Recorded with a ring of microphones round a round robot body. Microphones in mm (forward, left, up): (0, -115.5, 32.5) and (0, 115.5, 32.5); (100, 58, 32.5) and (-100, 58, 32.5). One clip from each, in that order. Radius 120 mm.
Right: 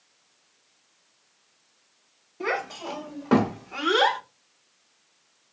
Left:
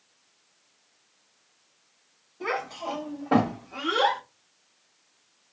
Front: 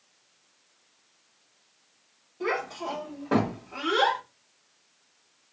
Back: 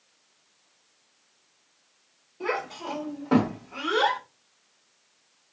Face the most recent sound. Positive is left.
turn(degrees=-95)